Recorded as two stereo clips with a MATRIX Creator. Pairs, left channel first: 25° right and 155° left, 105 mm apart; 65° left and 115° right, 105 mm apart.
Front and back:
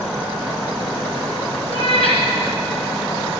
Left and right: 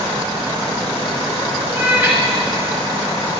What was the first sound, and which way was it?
A cat meowing, 35° right.